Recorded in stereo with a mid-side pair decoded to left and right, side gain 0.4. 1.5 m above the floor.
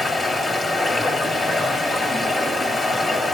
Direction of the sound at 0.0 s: 45° left.